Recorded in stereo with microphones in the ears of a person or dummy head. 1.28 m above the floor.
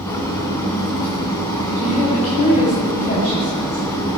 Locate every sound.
0.0 s an engine running: 15° left (ahead or behind), 3.5 m
1.8 s a woman speaking: 40° left (ahead or behind), 7 m